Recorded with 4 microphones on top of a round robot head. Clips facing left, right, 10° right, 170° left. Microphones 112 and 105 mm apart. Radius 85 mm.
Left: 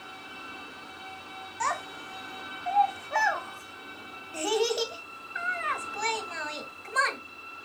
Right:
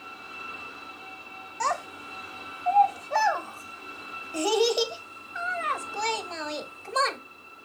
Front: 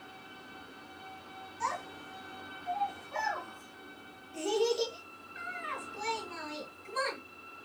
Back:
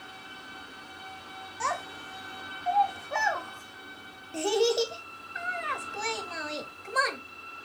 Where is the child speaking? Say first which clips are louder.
Right 3 dB, back 4 dB; 150° right, 1.0 m.